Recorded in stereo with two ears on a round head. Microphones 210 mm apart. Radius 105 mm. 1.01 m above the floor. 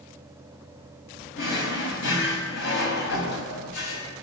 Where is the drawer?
55° left (ahead or behind), 4 m.